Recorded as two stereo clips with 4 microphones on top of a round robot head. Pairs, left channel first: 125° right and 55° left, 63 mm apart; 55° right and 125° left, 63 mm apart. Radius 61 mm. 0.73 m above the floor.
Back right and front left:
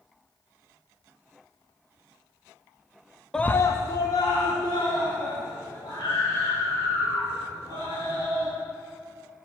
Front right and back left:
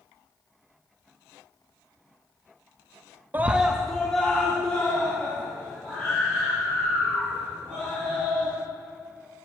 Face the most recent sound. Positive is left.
turn(degrees=-125)